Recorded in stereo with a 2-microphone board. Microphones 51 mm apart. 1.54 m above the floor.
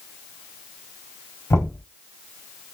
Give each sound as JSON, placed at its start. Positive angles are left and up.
{"t": 1.5, "sound": "knocking", "side_deg": 90, "distance_m": 4.0}